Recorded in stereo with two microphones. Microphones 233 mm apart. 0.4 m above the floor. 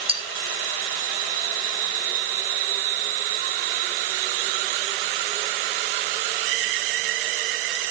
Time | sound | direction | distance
0.1 | cutlery clinking | 25° right (ahead or behind) | 4 m